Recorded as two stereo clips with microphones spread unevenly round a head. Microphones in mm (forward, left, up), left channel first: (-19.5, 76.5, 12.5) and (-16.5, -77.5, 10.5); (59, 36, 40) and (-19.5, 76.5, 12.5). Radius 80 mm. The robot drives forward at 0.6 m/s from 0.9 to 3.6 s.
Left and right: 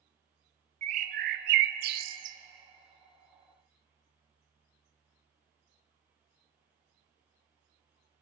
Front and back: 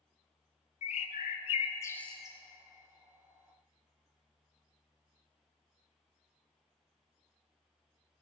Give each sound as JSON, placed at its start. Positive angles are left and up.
{"t": 0.8, "sound": "a bird", "azimuth_deg": -40, "distance_m": 0.7}